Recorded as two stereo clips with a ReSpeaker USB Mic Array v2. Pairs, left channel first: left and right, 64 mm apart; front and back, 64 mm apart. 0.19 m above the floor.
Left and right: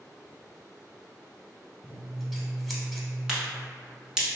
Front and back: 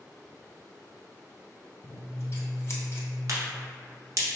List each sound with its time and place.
1.8 s scissors: straight ahead, 0.6 m
3.3 s a crack: 165° right, 1.0 m